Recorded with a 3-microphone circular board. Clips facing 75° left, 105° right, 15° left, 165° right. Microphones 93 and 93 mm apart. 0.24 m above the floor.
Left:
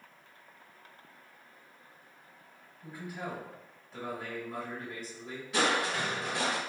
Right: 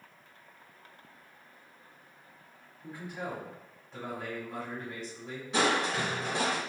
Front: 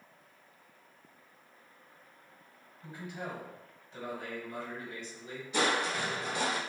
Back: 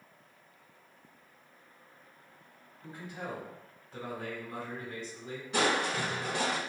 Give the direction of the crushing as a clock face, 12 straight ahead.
5 o'clock.